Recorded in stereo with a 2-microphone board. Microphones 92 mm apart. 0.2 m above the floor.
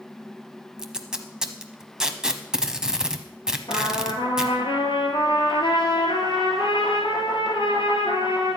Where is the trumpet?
60° left (ahead or behind), 2.5 m.